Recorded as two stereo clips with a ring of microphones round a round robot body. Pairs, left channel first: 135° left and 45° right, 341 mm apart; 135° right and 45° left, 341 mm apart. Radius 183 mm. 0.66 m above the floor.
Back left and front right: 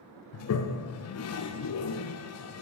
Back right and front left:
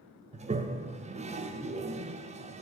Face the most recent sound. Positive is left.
turn(degrees=110)